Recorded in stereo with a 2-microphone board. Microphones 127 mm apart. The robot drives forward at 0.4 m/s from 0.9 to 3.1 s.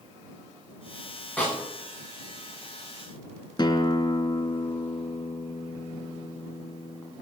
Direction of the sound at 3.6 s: 35° left (ahead or behind).